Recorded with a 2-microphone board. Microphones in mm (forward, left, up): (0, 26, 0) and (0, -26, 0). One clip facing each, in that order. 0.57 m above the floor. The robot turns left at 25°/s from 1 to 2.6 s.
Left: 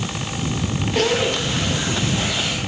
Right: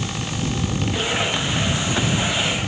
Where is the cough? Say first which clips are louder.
Left 6 dB; 100° left; by 2.4 s 65° left.